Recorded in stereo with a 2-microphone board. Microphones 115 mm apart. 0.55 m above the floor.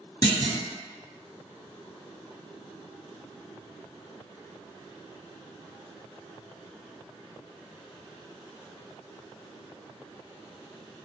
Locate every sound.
0.2 s a clunk: 35° left (ahead or behind), 1.2 m